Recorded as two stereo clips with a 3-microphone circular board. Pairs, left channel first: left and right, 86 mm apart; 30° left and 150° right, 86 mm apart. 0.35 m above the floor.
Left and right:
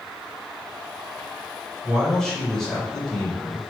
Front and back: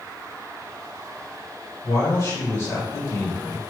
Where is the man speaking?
10° left, 1.9 m.